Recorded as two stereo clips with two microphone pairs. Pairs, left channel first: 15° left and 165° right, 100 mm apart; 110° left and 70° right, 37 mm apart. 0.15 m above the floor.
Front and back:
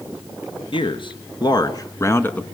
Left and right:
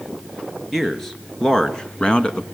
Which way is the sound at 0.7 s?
30° left.